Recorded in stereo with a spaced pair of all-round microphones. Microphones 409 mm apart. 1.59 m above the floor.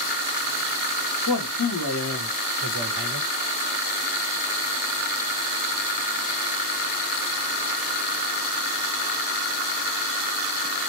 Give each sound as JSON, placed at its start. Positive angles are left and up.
{"t": 1.3, "sound": "a man speaking", "side_deg": 55, "distance_m": 0.9}